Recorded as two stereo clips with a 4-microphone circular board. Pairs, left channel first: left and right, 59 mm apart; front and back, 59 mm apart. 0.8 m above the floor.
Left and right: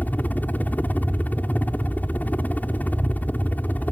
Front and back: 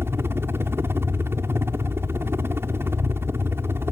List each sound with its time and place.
0.0 s a helicopter: 145° left